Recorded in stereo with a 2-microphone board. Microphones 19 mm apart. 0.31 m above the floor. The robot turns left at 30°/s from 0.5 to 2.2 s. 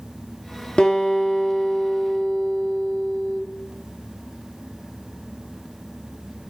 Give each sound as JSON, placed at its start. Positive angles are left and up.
{"t": 0.8, "sound": "a guitar", "azimuth_deg": 65, "distance_m": 2.5}